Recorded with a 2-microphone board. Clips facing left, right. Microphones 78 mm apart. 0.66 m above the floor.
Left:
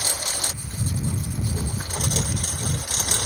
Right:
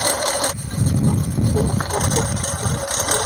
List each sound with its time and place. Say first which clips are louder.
0.0 s a lawn mower: right 11 dB; 65° right (ahead or behind)